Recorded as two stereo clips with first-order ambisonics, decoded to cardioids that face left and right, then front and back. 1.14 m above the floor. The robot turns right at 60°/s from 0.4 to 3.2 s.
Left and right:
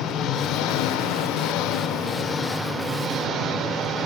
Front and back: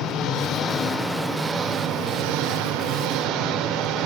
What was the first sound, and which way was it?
An engine running, 40° left.